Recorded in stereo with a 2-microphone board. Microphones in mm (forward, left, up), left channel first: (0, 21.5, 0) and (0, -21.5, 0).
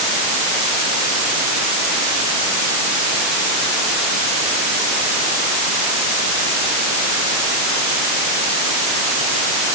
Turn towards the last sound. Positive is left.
No sound to turn to.